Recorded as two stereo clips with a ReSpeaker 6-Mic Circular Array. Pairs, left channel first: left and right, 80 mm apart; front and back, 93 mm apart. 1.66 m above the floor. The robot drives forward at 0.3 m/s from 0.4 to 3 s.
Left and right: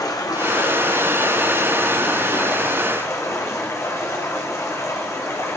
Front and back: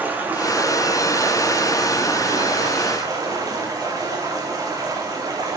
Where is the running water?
115° left, 1.6 m; by 5.6 s 135° left, 2.0 m.